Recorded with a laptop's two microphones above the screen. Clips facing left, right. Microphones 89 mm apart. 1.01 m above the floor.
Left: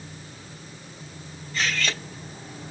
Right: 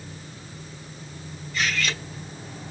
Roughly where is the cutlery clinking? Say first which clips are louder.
Even; left.